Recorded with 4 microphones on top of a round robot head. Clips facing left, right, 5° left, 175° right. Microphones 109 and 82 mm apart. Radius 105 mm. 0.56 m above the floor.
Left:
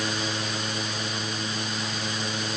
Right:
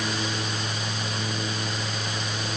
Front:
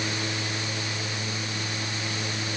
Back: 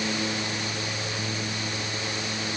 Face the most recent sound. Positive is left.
No sound to turn to.